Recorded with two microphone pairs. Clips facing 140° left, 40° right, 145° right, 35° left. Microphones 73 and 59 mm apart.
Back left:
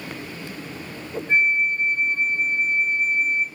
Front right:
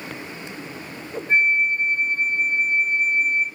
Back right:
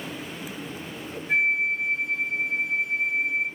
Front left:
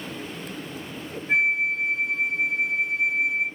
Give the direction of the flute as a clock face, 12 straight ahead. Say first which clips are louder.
Front right 1 dB, front left 1 dB; 9 o'clock.